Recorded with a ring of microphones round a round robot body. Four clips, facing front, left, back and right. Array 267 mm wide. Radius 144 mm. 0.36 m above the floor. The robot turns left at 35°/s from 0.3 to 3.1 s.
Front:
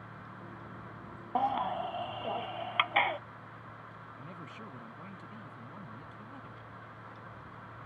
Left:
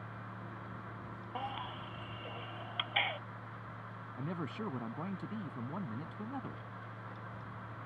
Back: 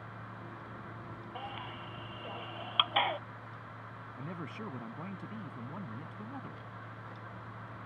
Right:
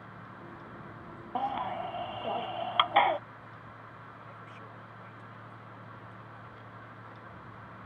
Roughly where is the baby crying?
Ahead right.